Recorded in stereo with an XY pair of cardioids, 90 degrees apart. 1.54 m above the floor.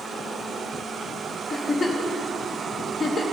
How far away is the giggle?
About 0.9 m.